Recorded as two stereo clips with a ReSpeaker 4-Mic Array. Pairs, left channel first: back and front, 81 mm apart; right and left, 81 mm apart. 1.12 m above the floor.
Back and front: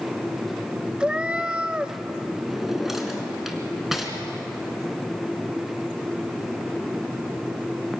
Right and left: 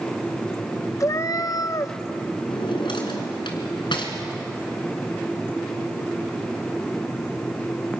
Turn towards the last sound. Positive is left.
turn(degrees=-85)